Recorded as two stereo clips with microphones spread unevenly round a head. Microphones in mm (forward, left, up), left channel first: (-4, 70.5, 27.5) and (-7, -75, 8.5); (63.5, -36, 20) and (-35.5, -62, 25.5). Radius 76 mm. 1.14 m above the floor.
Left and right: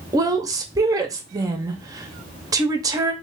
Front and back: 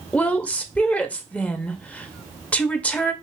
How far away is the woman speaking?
About 0.7 m.